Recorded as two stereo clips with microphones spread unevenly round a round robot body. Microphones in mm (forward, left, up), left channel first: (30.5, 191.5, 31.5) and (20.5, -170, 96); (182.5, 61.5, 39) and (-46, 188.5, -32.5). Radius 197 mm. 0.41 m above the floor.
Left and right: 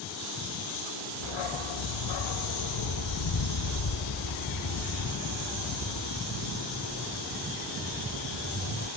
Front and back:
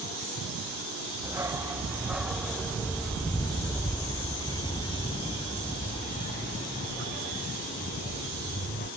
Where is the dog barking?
70° left; by 8.9 s 25° left.